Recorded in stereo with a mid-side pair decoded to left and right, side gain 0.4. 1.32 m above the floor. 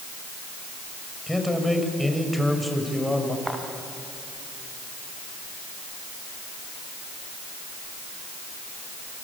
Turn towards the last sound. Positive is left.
turn(degrees=-10)